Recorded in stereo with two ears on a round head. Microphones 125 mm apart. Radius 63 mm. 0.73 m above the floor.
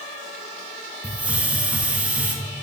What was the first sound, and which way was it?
A hiss, 10° right (ahead or behind).